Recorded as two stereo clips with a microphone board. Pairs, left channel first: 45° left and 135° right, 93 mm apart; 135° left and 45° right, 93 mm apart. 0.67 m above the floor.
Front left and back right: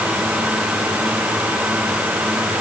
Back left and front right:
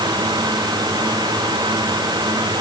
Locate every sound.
Only background noise.